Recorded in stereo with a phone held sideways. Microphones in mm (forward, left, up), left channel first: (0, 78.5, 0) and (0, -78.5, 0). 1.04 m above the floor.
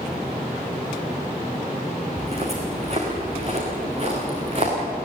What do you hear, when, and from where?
2.2 s footsteps: 40° right (ahead or behind), 4 m